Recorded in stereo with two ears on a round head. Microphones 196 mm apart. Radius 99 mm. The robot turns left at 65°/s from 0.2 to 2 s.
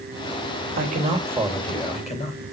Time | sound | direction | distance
0.8 | a man speaking | 130° right | 3.5 m